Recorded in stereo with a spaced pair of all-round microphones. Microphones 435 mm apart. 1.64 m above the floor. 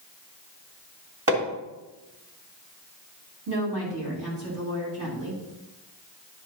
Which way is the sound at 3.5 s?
65° right (ahead or behind).